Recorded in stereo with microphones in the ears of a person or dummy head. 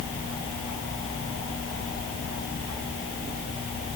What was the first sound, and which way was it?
Only background noise.